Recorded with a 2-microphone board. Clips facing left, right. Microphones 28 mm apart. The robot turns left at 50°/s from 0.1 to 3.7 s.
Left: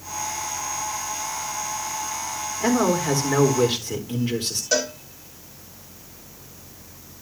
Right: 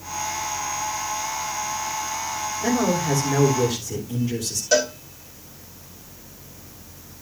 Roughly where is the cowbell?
Centre.